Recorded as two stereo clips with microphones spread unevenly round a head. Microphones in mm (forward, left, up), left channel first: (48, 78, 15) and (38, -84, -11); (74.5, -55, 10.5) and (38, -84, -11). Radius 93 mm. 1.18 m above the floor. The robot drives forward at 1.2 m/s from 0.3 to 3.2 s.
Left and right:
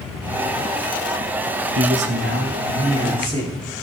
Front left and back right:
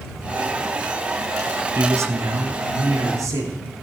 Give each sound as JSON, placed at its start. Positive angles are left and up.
{"t": 1.8, "sound": "a man speaking", "azimuth_deg": -115, "distance_m": 0.9}